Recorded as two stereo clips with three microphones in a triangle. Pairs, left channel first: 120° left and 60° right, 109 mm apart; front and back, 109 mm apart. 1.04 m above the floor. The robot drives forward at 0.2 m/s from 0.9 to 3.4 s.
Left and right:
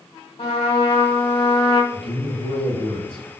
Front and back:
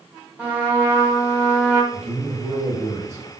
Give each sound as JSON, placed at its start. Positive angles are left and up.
{"t": 0.4, "sound": "a trumpet", "azimuth_deg": 100, "distance_m": 1.6}
{"t": 1.9, "sound": "a man speaking", "azimuth_deg": 155, "distance_m": 1.5}